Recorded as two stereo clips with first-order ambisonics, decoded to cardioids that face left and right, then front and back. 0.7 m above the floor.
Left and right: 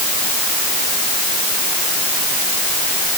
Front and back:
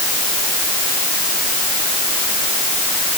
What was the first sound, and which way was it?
Only background noise.